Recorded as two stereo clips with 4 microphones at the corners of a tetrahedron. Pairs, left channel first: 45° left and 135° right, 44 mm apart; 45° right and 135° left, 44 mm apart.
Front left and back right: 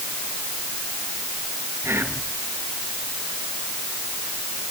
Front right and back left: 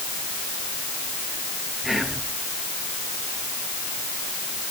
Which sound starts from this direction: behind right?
Whispering, at 1.8 s.